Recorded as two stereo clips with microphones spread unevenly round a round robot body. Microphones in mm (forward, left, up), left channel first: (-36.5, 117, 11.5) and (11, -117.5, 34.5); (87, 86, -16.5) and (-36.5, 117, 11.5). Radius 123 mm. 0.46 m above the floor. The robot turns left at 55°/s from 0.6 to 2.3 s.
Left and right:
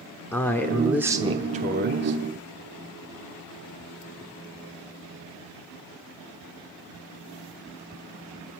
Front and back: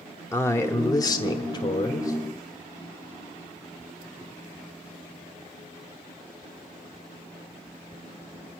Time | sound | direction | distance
0.3 | a man speaking | 30° left | 1.0 m